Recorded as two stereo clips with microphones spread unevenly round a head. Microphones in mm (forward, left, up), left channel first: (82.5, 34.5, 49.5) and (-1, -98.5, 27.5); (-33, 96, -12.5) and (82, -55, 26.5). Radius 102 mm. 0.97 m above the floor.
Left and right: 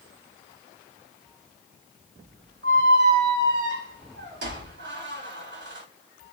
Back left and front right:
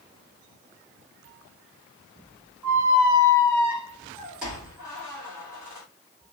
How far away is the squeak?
About 1.8 m.